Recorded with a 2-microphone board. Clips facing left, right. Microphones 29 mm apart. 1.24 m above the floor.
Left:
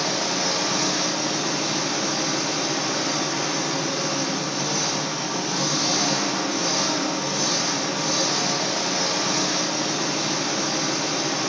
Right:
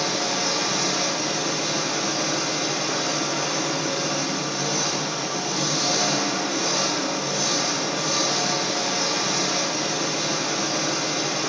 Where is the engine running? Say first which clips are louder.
Even; 25° left (ahead or behind), 1.9 m.